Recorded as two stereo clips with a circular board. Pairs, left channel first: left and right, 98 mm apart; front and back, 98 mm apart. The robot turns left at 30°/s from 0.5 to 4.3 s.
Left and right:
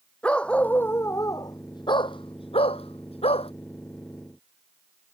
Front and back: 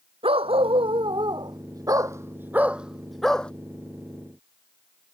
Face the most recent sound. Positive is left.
turn(degrees=55)